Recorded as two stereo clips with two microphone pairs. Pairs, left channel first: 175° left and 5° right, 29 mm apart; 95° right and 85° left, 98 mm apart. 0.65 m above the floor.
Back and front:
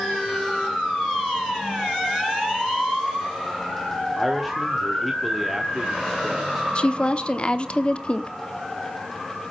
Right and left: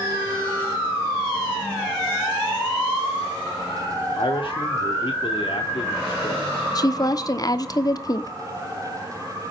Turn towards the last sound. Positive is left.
turn(degrees=-135)